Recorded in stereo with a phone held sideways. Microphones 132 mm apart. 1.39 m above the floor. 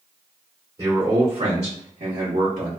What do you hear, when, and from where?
0.8 s a man speaking: 30° right (ahead or behind), 1.5 m; by 2.7 s 80° right, 1.0 m